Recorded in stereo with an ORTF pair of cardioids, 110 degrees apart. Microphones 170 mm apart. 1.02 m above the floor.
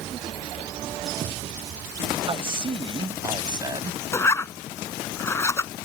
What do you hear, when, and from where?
2.3 s a man speaking: 30° right; by 4.0 s 25° right
4.1 s a zipper: 15° left